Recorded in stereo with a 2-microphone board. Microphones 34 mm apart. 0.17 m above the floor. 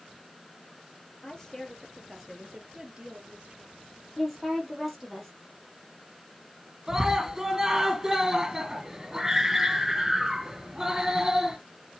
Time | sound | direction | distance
1.2 | a woman speaking | 20° left (ahead or behind) | 3.5 m
4.2 | a woman speaking | 5° left (ahead or behind) | 5.5 m
6.9 | a scream | 15° right (ahead or behind) | 2.5 m